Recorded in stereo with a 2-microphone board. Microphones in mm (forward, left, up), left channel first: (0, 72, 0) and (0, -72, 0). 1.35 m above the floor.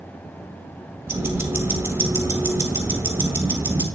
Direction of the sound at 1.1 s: 15° right (ahead or behind).